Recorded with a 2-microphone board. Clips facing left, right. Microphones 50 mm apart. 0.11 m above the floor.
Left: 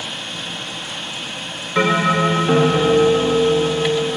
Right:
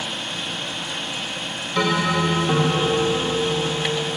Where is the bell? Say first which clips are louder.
Left 5 dB; 35° left (ahead or behind), 0.5 m.